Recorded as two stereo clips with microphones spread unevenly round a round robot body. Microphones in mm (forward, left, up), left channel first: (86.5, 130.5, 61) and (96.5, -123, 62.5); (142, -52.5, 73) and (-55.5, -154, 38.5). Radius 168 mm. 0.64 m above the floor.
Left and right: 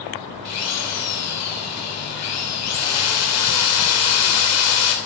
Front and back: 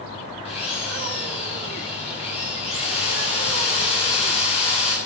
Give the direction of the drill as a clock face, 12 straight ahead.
9 o'clock.